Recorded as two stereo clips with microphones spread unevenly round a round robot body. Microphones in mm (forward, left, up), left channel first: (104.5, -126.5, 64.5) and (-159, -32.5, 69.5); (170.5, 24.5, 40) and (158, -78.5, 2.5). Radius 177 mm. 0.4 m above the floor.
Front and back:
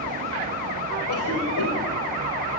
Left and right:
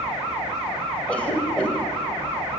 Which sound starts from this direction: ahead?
A cough, at 1.1 s.